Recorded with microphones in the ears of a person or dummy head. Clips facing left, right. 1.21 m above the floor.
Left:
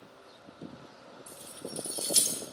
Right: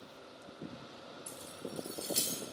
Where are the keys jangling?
10° right (ahead or behind), 0.8 m; by 2.4 s 70° left (ahead or behind), 1.7 m.